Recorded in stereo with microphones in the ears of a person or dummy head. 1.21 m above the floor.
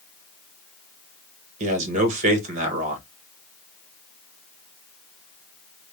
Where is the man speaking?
40° right (ahead or behind), 1.4 m.